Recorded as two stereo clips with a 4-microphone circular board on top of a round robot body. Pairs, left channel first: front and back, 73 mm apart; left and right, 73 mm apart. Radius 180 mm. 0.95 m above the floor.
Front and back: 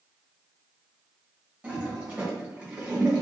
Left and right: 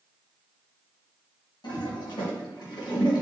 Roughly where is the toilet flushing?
Behind left.